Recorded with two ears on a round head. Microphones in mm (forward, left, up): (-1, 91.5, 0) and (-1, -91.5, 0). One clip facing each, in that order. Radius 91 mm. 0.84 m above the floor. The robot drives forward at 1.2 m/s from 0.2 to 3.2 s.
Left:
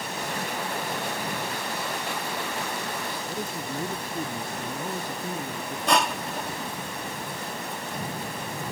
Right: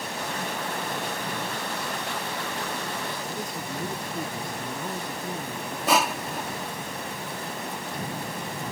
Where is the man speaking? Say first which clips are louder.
Left 1 dB; 5° left (ahead or behind).